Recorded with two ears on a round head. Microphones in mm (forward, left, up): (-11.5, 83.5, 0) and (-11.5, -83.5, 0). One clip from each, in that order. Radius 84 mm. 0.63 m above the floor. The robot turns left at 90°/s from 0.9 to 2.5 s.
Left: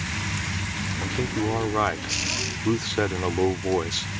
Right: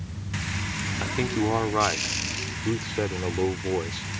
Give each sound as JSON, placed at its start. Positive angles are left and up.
{"t": 1.0, "sound": "a man speaking", "azimuth_deg": -100}